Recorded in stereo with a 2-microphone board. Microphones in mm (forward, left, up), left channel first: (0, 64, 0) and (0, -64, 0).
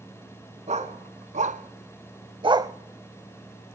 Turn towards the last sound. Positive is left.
turn(degrees=-25)  # may be behind; listen again after turning